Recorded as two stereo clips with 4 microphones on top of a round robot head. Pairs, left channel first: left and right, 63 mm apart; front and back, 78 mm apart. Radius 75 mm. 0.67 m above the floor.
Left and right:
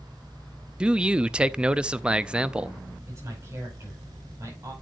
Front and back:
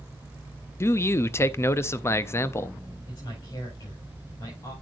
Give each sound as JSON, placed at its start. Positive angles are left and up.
{"t": 0.8, "sound": "a man speaking", "azimuth_deg": -25, "distance_m": 0.5}
{"t": 3.1, "sound": "a man speaking", "azimuth_deg": -40, "distance_m": 5.5}